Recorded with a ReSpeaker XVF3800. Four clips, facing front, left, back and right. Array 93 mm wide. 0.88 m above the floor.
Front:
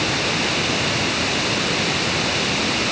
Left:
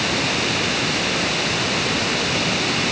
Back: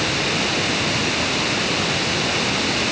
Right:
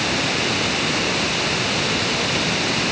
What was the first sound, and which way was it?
Only background noise.